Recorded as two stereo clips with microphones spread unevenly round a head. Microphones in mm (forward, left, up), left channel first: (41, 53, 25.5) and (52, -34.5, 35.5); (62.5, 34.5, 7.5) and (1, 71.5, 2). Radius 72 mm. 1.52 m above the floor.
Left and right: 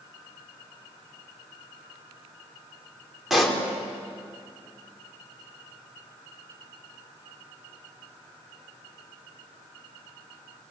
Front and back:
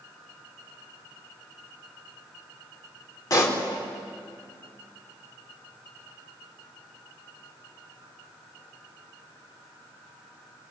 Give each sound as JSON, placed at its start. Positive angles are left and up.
{"t": 3.3, "sound": "a pop", "azimuth_deg": 5, "distance_m": 4.5}